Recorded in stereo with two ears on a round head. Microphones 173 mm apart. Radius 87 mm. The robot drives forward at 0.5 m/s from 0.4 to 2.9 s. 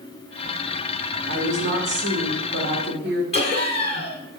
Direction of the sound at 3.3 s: 35° left (ahead or behind).